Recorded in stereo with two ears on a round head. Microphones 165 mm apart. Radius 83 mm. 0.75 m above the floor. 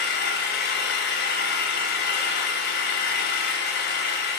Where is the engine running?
60° left (ahead or behind), 2.5 m.